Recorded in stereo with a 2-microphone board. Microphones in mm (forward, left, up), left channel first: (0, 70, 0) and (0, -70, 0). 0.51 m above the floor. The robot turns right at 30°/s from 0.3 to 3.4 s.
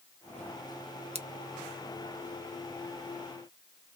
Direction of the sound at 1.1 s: 50° right (ahead or behind).